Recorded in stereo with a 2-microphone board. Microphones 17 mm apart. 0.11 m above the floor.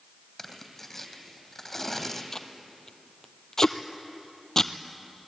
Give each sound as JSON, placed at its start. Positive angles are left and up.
{"t": 0.4, "sound": "tearing paper", "side_deg": 20, "distance_m": 3.0}
{"t": 2.3, "sound": "tape being pulled", "side_deg": 25, "distance_m": 1.1}